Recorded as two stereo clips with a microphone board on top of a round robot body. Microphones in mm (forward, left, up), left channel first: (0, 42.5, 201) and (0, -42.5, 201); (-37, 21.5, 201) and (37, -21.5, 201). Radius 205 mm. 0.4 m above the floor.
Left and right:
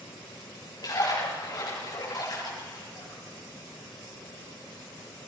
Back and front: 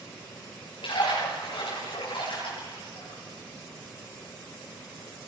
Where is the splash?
135° left, 9 m.